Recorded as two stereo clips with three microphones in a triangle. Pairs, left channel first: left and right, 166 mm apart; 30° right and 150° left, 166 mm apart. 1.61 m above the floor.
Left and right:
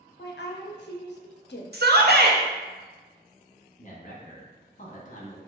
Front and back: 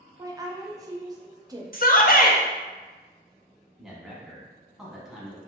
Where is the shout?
65° right, 0.6 m.